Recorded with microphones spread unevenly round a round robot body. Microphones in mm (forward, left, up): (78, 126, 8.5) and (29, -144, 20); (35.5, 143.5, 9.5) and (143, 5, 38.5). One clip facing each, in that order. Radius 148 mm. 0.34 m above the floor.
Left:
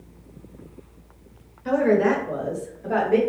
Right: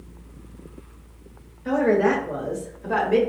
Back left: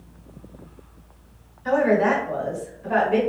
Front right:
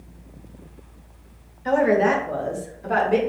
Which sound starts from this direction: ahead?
A woman speaking, at 1.6 s.